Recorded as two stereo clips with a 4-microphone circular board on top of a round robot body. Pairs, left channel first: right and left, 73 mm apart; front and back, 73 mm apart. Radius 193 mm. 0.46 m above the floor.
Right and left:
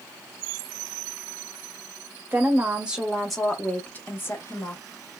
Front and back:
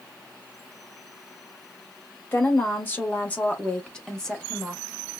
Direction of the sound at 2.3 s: 40° left.